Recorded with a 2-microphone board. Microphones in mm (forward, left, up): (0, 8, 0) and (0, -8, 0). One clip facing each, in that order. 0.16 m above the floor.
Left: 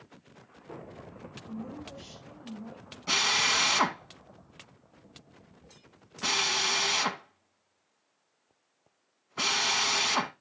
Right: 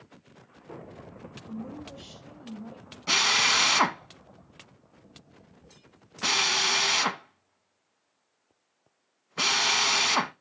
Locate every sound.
1.5 s a woman speaking: 20° right (ahead or behind), 4.5 m
3.1 s a drill: 15° right (ahead or behind), 0.7 m